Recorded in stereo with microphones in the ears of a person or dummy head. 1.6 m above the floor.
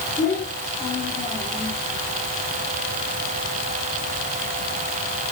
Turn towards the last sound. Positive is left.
turn(degrees=5)  # may be behind; listen again after turning